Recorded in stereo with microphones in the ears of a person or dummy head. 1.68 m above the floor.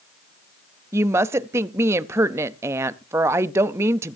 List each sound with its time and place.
0.9 s a woman speaking: 15° right (ahead or behind), 0.6 m